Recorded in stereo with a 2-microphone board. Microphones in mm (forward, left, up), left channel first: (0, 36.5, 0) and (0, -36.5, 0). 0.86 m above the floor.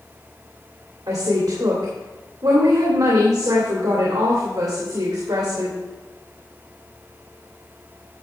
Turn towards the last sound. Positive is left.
turn(degrees=-55)  # may be behind; listen again after turning